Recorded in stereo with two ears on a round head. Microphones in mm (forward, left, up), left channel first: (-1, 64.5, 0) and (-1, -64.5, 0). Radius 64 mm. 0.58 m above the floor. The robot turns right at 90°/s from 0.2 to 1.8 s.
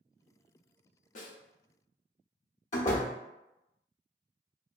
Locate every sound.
1.1 s a snare drum: 55° left (ahead or behind), 0.8 m; by 1.4 s 75° left (ahead or behind), 0.8 m
2.7 s a door slam: 50° left (ahead or behind), 1.0 m